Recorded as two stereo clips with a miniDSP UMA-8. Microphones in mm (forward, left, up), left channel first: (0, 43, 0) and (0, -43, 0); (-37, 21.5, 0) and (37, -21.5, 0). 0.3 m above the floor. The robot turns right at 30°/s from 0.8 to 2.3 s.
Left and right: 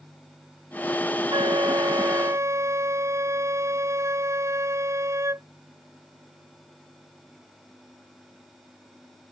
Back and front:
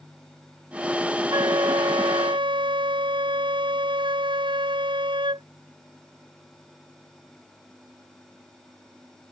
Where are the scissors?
I don't hear scissors.